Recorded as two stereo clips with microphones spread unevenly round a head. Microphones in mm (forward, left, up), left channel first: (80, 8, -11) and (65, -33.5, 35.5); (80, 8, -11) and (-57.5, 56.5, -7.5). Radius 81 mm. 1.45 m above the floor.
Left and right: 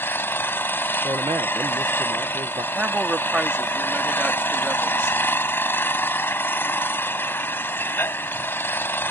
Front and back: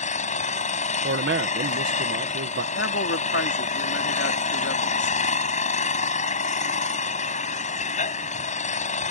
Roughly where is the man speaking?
Behind.